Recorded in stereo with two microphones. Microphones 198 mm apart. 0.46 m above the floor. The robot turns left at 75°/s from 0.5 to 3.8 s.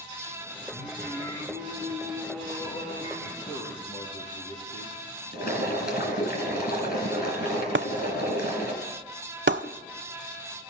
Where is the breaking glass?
80° right, 0.6 m.